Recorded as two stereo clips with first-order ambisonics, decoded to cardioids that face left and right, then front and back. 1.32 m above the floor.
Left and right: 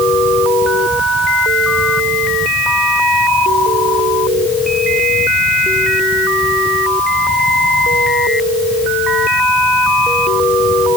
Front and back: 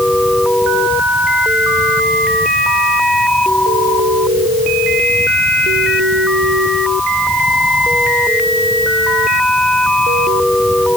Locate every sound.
Only background noise.